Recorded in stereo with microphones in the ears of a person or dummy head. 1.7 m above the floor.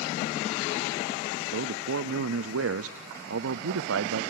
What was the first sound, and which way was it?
A man speaking, 85° right.